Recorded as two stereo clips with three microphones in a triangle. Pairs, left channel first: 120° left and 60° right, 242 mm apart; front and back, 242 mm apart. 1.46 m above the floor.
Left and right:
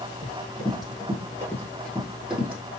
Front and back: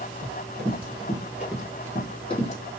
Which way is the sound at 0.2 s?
175° left.